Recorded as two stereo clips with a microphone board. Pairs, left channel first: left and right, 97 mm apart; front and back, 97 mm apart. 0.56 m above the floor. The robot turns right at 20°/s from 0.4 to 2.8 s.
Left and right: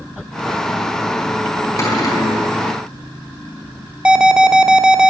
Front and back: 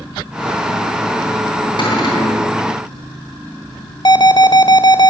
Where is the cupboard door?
35° left, 4.5 m; by 2.5 s 50° left, 4.5 m.